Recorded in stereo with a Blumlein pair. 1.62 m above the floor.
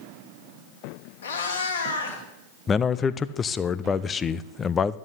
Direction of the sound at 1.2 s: 65° left.